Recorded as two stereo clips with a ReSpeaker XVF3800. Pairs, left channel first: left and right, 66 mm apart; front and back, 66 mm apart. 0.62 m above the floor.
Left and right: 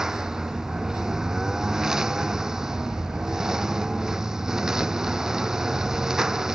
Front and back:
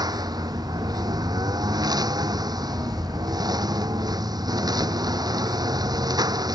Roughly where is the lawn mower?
Behind.